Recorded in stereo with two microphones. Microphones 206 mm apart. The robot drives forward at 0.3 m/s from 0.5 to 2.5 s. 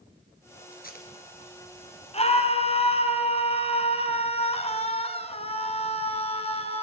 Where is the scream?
30° left (ahead or behind), 1.8 m.